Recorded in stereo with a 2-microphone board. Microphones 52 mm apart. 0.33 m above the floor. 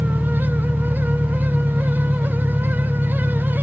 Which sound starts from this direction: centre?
An engine running, at 0.0 s.